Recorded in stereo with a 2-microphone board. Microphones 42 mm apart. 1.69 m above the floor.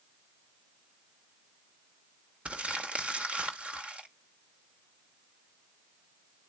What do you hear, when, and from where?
2.5 s crumpling: 30° right (ahead or behind), 1.2 m